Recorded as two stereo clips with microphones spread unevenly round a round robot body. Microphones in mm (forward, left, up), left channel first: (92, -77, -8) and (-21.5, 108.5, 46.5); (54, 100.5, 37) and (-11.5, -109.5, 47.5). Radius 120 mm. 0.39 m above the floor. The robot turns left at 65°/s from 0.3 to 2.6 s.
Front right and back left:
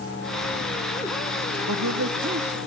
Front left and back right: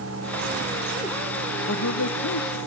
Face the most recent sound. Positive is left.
turn(degrees=50)